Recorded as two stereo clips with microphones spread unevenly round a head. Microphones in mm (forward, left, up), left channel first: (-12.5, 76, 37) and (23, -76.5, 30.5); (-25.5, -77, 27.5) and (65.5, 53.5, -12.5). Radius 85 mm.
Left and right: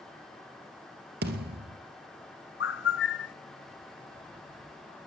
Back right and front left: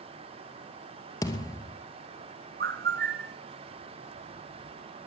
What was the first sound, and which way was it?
A thud, 80° right.